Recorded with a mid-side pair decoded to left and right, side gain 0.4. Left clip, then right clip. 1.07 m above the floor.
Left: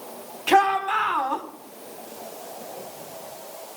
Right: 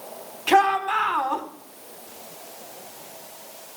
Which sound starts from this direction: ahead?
A shout, at 0.5 s.